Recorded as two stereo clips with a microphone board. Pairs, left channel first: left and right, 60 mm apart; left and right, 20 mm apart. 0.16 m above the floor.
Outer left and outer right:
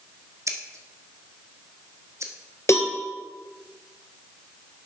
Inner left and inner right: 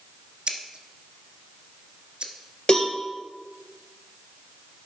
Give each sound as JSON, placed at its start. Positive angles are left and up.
{"t": 0.5, "sound": "scissors", "side_deg": -55, "distance_m": 1.2}
{"t": 2.7, "sound": "a cowbell", "side_deg": 45, "distance_m": 1.6}